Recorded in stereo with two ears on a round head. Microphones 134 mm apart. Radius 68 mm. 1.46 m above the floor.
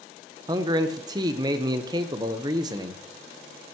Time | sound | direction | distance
0.5 | a man speaking | 25° right (ahead or behind) | 1.0 m